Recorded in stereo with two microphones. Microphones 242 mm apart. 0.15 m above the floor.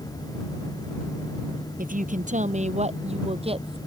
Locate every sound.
1.8 s a woman speaking: 35° right (ahead or behind); by 3.8 s 20° right (ahead or behind)